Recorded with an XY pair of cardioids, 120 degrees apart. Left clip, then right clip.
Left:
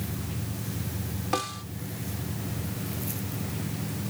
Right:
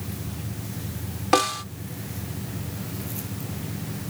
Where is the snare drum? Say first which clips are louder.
Right 9 dB; 50° right.